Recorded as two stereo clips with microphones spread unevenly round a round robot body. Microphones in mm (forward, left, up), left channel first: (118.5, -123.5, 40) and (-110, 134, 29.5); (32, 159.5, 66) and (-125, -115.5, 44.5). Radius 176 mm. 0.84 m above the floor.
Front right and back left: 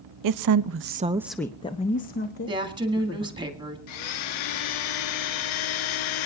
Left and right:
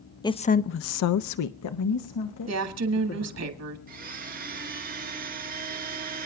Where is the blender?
55° right, 0.8 m.